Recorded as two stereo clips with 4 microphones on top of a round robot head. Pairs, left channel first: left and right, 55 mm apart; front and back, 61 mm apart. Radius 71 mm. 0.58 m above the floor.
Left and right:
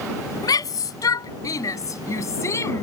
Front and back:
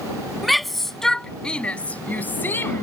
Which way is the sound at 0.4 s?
90° left.